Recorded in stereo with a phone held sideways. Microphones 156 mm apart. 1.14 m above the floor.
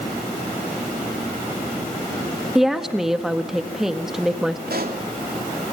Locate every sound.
2.5 s a woman speaking: centre (ahead or behind), 1.6 m
4.7 s a pop: 75° right (ahead or behind), 3.5 m